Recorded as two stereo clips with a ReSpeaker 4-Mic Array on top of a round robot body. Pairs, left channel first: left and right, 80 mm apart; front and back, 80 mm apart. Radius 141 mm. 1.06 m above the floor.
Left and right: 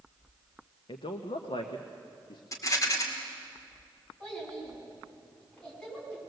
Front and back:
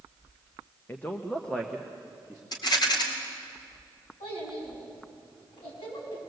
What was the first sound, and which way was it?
A man speaking, 65° left.